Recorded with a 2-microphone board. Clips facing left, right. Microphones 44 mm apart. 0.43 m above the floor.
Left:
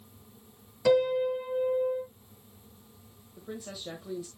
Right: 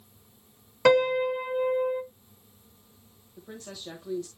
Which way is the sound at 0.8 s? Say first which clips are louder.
Right 3 dB; 55° right (ahead or behind).